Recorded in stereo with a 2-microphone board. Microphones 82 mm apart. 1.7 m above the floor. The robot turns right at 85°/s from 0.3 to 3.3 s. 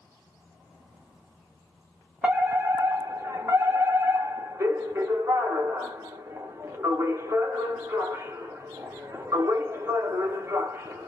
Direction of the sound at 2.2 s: 155° right.